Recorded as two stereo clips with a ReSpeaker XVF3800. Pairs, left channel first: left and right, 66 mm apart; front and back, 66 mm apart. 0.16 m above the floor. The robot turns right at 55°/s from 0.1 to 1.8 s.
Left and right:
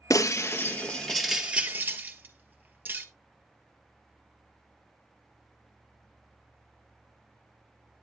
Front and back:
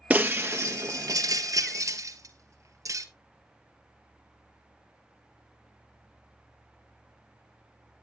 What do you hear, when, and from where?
0.1 s breaking glass: 115° left, 1.2 m; by 3.0 s 150° right, 1.2 m